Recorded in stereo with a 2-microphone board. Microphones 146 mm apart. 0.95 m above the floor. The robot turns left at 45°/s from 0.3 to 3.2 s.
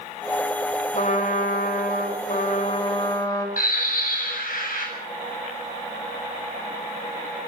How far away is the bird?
About 7.5 m.